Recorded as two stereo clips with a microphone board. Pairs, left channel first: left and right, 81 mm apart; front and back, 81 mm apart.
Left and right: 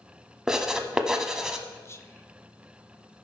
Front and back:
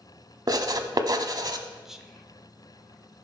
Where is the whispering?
100° left, 1.1 m.